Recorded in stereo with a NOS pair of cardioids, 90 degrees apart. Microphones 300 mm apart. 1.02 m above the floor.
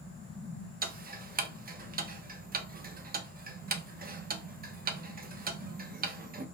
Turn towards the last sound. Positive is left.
turn(degrees=-30)